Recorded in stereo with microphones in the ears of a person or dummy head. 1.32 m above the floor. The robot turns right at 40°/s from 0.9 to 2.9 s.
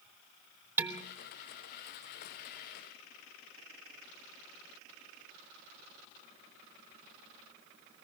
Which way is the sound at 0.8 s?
5° right (ahead or behind).